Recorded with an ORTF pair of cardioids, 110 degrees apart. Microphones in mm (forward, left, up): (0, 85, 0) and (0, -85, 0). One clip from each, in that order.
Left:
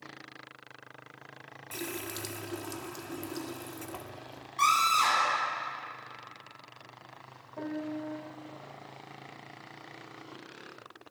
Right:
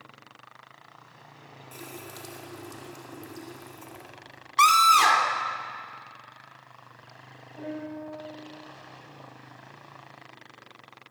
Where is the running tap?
40° left, 2 m.